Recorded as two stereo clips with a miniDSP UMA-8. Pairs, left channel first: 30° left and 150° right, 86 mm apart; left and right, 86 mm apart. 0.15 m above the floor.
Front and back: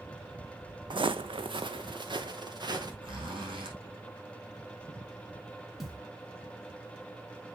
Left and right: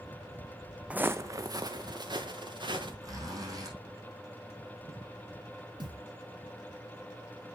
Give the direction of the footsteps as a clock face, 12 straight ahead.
6 o'clock.